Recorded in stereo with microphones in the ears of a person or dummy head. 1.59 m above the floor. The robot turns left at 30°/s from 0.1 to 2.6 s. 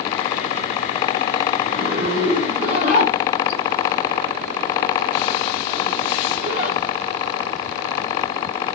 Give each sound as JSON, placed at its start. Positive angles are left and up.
{"t": 1.6, "sound": "a zipper", "side_deg": -75, "distance_m": 4.0}